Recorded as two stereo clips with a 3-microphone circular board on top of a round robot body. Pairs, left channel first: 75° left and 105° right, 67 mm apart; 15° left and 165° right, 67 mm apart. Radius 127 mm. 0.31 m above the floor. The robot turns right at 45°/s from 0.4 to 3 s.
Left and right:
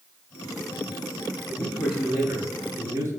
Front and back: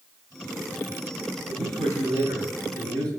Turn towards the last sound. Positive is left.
turn(degrees=-150)